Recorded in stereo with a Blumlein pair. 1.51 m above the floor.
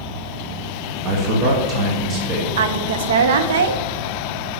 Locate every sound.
1.1 s a man speaking: 30° right, 1.6 m
2.6 s a woman speaking: 60° right, 0.8 m